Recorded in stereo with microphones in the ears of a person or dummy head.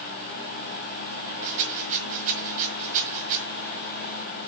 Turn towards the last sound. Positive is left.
turn(degrees=-40)  # may be behind; listen again after turning